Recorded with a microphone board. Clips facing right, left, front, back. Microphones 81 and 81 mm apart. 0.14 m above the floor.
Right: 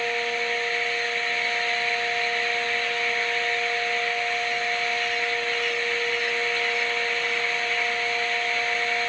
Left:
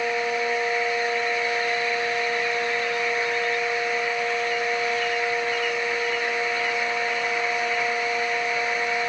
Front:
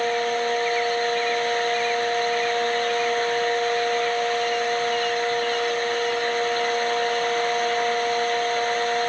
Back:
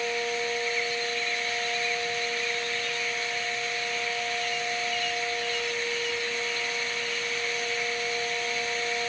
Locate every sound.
Only background noise.